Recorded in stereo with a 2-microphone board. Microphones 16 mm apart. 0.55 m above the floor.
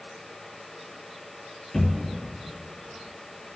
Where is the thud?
65° left (ahead or behind), 3.5 m.